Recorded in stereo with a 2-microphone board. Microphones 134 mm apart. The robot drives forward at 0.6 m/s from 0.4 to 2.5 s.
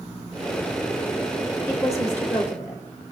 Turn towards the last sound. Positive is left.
turn(degrees=20)  # may be behind; listen again after turning